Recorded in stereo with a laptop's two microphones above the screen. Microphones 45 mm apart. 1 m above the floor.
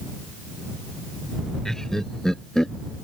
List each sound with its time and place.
1.6 s laughter: 10° left (ahead or behind)